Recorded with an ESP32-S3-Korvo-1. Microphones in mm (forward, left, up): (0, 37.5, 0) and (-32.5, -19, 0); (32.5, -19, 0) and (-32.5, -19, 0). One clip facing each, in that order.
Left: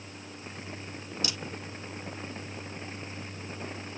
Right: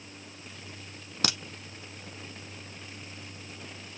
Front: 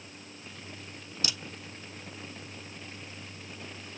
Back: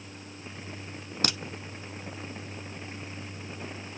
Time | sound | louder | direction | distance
1.2 | a crack | right 6 dB, back 6 dB | 145° right | 1.0 m